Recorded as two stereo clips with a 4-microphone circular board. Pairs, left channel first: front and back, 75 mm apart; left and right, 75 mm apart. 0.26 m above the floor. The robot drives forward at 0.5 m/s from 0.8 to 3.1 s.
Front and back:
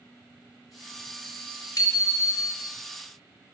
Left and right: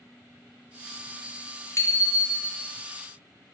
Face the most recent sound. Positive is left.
turn(degrees=50)